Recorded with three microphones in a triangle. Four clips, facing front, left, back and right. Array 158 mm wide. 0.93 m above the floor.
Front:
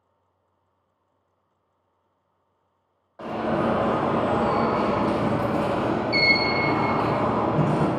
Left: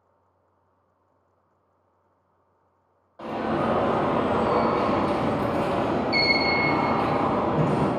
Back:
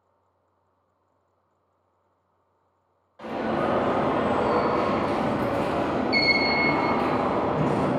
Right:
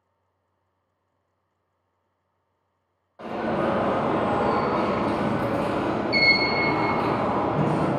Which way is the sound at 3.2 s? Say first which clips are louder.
Even, front 2 dB; 5° left.